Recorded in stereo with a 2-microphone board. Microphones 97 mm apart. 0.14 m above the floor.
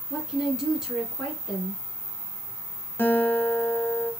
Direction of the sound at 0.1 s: Centre (ahead or behind).